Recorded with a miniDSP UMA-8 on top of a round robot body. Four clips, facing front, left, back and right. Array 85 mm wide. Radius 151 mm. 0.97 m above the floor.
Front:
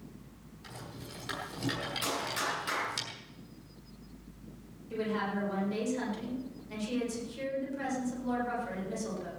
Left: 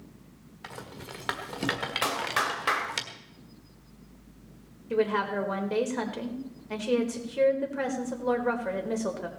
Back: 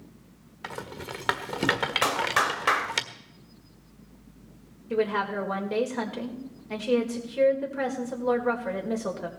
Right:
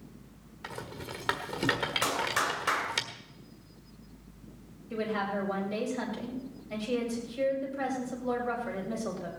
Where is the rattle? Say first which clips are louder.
Right 2 dB, back 10 dB; 175° right, 1.5 m.